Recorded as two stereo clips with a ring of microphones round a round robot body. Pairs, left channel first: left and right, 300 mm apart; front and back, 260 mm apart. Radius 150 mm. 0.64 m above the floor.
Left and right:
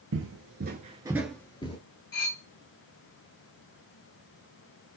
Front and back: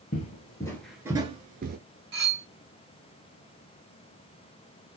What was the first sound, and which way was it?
Footsteps, 55° right.